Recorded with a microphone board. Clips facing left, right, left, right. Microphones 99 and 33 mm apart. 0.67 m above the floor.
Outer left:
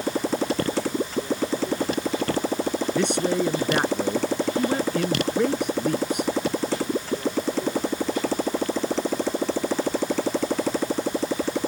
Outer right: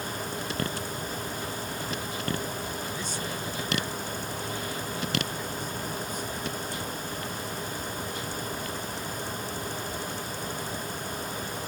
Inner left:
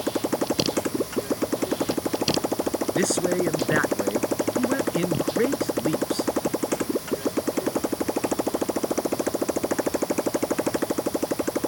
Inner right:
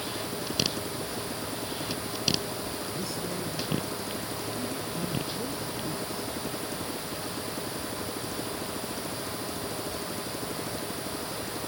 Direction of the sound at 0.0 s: 85° left.